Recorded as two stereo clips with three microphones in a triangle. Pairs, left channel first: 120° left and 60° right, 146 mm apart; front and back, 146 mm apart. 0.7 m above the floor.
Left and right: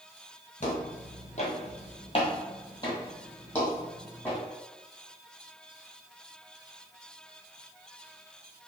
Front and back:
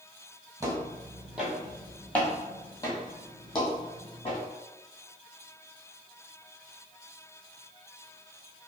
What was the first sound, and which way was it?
Footsteps, 115° left.